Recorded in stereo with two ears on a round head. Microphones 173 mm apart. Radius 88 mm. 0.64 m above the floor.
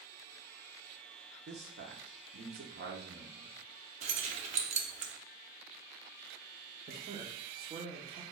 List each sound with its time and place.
1.5 s a man speaking: 55° right (ahead or behind), 1.3 m
4.0 s keys jangling: 35° right (ahead or behind), 0.6 m
6.9 s a man speaking: 30° right (ahead or behind), 1.1 m